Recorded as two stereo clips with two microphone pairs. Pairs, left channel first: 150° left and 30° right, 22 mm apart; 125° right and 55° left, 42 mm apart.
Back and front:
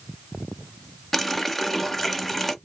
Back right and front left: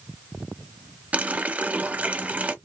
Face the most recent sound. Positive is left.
turn(degrees=65)